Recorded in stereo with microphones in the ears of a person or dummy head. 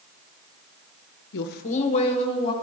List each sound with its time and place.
1.3 s a woman speaking: 60° left (ahead or behind), 0.7 m; by 2.5 s 25° left (ahead or behind), 2 m